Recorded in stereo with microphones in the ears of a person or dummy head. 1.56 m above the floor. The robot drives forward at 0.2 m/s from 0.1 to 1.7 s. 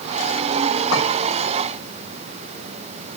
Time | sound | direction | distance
0.9 | a clink | 70° left (ahead or behind) | 2.5 m